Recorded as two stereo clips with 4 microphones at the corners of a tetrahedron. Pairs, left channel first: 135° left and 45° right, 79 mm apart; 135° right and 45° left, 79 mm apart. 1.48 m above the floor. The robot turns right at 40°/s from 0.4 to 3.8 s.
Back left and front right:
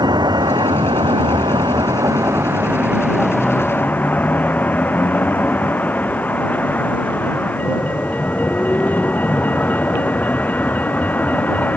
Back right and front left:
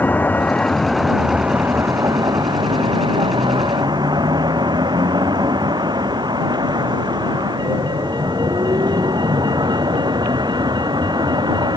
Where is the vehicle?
70° right; by 11.8 s 65° left.